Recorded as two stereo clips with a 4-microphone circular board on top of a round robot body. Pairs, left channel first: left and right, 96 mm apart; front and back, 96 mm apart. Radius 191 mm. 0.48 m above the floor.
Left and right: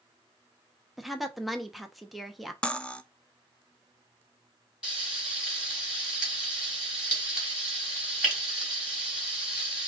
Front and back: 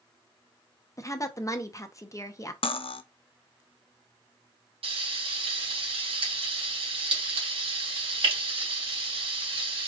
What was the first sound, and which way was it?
A woman speaking, straight ahead.